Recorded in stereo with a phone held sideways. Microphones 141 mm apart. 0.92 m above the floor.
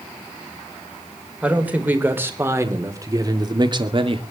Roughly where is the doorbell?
I don't hear a doorbell.